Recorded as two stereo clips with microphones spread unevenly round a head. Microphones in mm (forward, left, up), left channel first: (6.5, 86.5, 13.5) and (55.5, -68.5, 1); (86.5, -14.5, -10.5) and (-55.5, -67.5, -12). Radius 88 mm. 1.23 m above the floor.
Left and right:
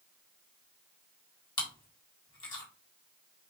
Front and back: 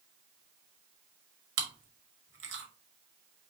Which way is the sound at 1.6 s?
175° left.